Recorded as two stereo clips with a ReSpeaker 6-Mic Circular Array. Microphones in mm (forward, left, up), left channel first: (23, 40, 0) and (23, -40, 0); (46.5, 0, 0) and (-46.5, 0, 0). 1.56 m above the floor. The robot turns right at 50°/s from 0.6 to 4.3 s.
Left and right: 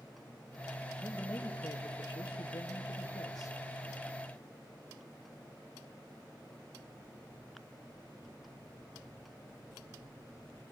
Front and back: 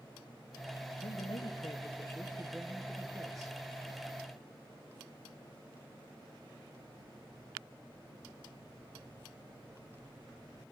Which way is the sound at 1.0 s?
10° left.